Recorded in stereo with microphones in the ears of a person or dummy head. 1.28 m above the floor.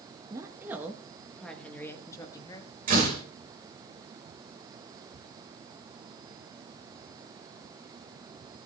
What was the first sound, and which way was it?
A woman speaking, 20° right (ahead or behind).